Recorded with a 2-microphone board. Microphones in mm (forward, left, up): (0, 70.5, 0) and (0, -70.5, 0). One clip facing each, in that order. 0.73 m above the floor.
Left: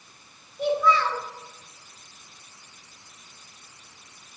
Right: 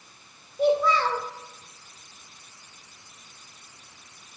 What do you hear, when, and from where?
0.6 s a child speaking: 35° right (ahead or behind), 1.9 m